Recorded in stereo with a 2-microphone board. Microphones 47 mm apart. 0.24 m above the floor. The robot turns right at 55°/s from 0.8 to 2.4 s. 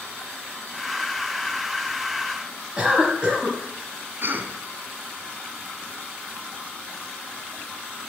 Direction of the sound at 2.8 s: 25° right (ahead or behind).